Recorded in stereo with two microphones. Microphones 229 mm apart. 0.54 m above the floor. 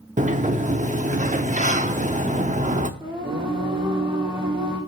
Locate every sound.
0.2 s a sliding door: 35° right (ahead or behind), 0.9 m
3.0 s singing: 20° right (ahead or behind), 4.5 m